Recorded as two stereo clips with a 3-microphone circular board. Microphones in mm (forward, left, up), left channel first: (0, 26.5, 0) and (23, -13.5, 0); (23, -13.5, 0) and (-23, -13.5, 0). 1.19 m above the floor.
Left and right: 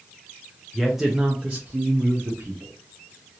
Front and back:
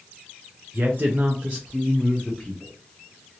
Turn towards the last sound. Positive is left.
turn(degrees=-80)